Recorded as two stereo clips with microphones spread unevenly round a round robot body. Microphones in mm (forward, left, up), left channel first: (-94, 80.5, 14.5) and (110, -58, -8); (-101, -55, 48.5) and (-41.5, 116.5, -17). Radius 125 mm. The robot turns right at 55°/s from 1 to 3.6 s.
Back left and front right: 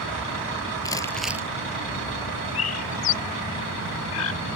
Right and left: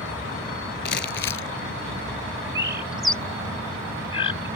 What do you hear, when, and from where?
0.8 s crumpling: 135° right; by 1.5 s 110° right
2.5 s a bird: 120° left; by 4.5 s straight behind